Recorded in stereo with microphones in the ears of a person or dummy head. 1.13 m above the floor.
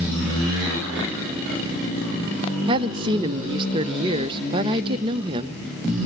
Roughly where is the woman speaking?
Right.